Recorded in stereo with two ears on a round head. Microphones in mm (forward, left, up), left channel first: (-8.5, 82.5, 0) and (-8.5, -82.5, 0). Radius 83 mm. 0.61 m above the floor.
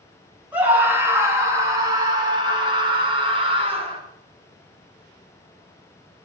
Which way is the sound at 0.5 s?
10° right (ahead or behind).